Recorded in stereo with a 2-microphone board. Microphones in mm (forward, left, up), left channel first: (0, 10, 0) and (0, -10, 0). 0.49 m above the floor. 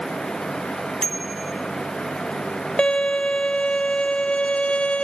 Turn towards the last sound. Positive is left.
turn(degrees=65)  # may be behind; listen again after turning